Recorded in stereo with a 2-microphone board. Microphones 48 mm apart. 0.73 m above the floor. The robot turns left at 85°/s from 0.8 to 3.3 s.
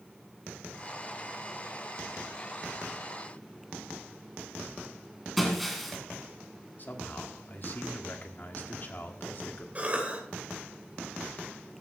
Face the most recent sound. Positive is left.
turn(degrees=-30)  # may be behind; listen again after turning